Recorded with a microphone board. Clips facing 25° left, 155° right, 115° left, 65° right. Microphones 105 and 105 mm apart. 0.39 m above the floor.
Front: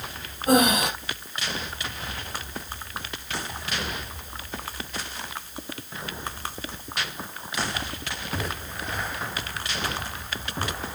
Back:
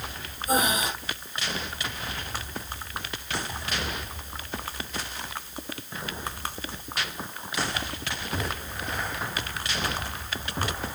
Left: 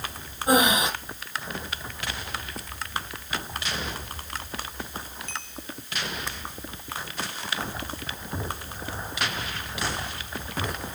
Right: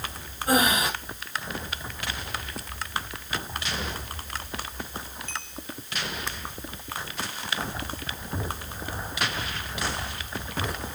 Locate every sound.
0.5 s breathing: 40° left, 4.5 m